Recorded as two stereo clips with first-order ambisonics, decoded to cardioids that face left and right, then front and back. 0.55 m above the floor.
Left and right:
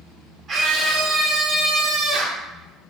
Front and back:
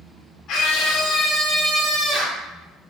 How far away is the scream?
About 1.7 m.